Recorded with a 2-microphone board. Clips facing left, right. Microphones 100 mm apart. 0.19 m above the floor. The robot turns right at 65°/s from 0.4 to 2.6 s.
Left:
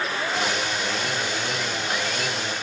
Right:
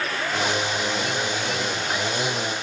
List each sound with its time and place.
Only background noise.